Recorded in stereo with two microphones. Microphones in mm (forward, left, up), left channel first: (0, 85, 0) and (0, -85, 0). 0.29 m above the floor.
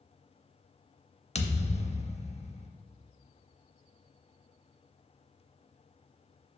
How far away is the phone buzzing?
No phone buzzing in this recording.